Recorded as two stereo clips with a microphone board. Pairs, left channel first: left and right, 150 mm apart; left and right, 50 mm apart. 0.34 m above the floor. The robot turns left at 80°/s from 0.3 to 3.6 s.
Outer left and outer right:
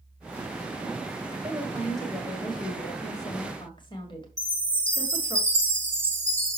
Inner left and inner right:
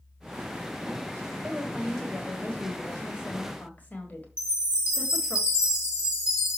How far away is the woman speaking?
About 1.8 m.